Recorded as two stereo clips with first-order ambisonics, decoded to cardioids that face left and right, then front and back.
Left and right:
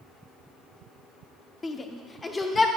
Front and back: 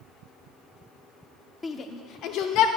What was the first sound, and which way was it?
A shout, 50° left.